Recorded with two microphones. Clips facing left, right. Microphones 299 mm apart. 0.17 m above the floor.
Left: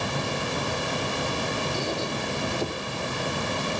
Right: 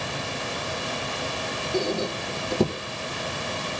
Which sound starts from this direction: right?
A squeak, at 1.7 s.